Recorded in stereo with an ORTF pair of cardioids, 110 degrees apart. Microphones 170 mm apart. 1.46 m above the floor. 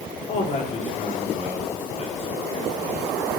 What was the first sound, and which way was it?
A man speaking, 45° left.